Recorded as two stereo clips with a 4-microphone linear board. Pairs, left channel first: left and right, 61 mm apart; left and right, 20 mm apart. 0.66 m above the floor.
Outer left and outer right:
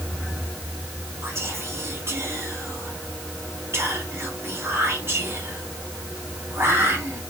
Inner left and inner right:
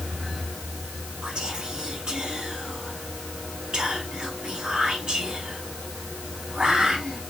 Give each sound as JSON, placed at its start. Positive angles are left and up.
{"t": 1.2, "sound": "whispering", "side_deg": -45, "distance_m": 1.5}